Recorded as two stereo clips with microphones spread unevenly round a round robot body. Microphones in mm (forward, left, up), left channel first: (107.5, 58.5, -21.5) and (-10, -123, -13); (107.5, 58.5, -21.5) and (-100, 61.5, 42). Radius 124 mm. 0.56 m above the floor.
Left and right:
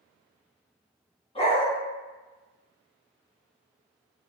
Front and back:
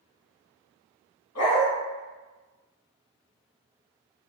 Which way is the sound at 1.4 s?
5° right.